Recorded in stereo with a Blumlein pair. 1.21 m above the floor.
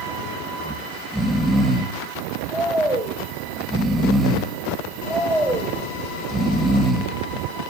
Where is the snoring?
5° right, 1.8 m.